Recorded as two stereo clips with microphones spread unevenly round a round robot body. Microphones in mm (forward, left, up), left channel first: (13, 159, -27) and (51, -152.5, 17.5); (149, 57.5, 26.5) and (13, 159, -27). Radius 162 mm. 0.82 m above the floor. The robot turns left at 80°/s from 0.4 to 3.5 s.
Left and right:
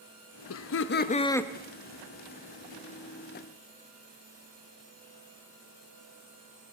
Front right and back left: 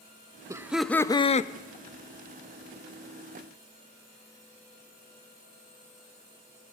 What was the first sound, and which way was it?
Laughter, 95° left.